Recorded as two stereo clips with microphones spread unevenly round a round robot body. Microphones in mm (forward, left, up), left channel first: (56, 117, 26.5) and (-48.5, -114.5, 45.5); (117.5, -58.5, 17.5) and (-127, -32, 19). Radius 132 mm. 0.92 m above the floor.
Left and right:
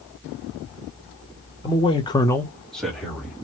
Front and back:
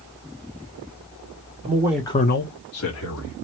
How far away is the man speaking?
About 0.9 m.